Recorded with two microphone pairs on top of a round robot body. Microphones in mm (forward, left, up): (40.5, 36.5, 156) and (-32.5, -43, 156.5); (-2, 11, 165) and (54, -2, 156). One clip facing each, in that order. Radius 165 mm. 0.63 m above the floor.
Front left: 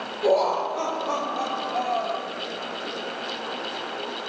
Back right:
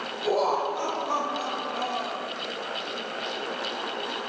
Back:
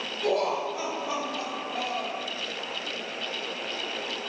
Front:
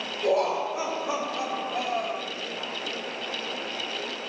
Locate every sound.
0.2 s laughter: 50° left, 3 m